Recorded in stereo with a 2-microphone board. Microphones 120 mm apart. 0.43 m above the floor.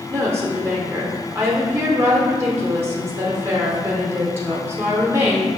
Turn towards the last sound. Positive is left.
turn(degrees=-20)  # may be behind; listen again after turning